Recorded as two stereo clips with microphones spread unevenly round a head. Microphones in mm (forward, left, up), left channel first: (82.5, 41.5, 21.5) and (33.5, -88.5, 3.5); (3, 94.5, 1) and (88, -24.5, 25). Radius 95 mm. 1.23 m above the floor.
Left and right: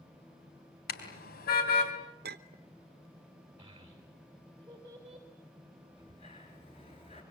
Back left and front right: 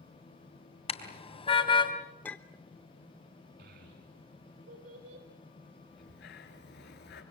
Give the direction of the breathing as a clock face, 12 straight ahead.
8 o'clock.